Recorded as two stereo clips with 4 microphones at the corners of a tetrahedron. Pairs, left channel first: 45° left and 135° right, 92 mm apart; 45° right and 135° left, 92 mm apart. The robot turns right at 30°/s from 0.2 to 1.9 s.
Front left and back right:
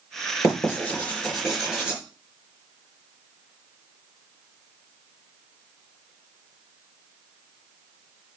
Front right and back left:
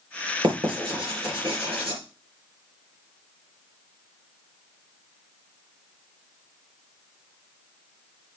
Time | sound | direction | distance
0.4 | writing | 100° left | 4 m